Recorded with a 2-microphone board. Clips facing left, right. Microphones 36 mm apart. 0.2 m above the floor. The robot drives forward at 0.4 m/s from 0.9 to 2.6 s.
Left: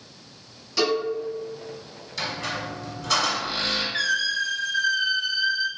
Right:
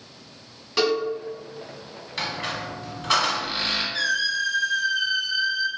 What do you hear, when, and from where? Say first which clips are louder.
0.8 s a cowbell: right 1 dB; 35° right (ahead or behind), 0.9 m
2.2 s a squeak: even; 35° right (ahead or behind), 0.8 m; by 3.8 s 30° right (ahead or behind), 0.9 m
3.9 s a squeak: even; 40° left (ahead or behind), 0.8 m